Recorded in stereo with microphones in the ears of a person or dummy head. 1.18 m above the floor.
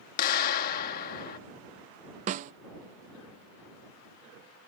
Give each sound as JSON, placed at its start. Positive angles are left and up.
{"t": 0.2, "sound": "a clap", "side_deg": 50}
{"t": 2.3, "sound": "a snare drum", "side_deg": -45}